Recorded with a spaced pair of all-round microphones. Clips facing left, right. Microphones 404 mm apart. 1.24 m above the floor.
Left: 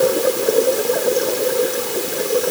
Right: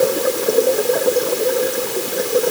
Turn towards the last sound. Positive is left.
No sound to turn to.